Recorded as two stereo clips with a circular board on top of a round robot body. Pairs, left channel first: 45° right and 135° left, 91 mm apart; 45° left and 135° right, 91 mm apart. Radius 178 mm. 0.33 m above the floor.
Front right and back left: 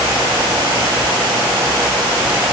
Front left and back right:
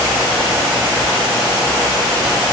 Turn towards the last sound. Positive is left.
No sound to turn to.